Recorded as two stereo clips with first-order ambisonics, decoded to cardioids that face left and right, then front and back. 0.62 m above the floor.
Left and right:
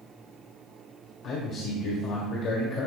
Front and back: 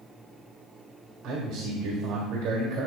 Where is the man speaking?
130° left, 2.0 m.